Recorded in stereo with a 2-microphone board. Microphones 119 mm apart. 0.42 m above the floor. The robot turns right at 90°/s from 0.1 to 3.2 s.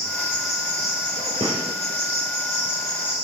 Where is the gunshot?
50° right (ahead or behind), 5.5 m; by 1.6 s 70° right (ahead or behind), 5.5 m.